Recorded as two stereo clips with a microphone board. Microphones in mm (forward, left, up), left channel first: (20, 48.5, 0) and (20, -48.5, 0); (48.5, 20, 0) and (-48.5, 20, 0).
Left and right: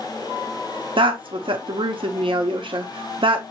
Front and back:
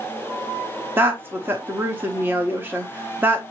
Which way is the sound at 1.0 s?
115° right.